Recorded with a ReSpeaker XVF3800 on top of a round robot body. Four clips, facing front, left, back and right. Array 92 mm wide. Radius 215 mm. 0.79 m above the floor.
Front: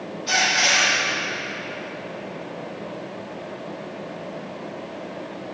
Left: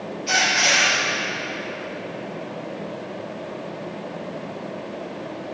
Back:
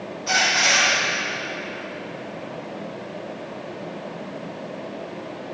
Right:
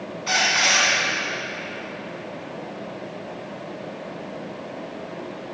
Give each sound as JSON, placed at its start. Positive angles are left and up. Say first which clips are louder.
{"t": 0.3, "sound": "a squeak", "louder": "left 1 dB, back 1 dB", "azimuth_deg": -105, "distance_m": 1.5}